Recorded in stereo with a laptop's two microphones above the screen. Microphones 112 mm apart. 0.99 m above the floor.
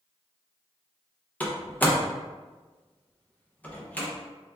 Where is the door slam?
15° left (ahead or behind), 0.5 m.